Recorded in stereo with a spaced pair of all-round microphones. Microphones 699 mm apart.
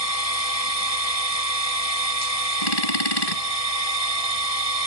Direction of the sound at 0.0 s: 55° left (ahead or behind).